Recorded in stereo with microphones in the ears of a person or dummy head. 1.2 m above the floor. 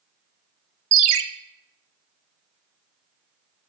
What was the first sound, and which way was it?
A ringtone, 75° right (ahead or behind).